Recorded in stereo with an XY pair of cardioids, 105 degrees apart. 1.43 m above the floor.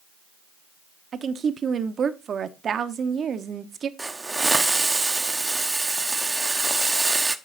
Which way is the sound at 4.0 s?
20° right.